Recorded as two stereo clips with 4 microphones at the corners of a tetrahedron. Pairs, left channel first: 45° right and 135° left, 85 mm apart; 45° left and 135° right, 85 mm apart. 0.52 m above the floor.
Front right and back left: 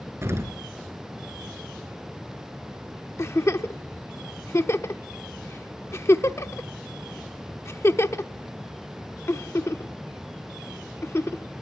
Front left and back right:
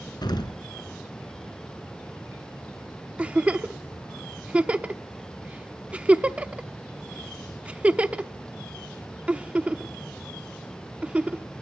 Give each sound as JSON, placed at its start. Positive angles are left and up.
{"t": 0.2, "sound": "an explosion", "azimuth_deg": 75, "distance_m": 2.5}
{"t": 3.2, "sound": "a giggle", "azimuth_deg": -70, "distance_m": 0.9}